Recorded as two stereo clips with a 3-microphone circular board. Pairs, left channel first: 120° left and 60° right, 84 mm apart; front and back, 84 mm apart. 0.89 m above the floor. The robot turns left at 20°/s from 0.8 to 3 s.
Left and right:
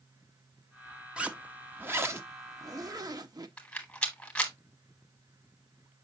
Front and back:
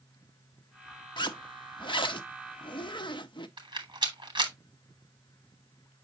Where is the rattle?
165° right, 1.6 m.